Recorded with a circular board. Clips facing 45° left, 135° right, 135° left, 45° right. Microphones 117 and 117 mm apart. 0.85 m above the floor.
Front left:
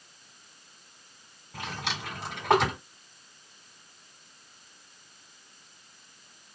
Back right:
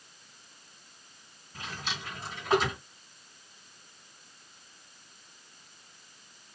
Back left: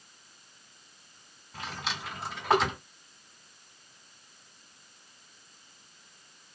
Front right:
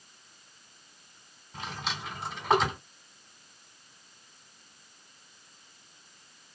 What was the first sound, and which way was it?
A drawer, 45° left.